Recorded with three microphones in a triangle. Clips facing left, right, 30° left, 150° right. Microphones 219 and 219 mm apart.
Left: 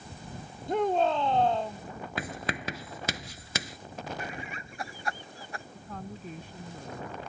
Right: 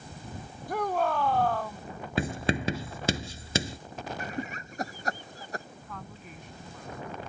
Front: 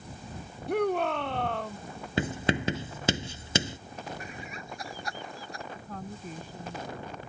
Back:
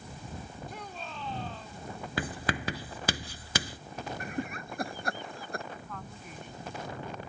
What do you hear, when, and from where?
0.7 s a shout: 25° left
2.2 s writing: 35° right
4.2 s laughter: 130° right
5.8 s a woman speaking: 55° left